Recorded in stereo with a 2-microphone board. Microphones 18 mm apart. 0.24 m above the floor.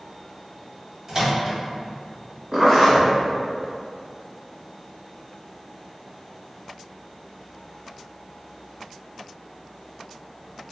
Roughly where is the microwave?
Right.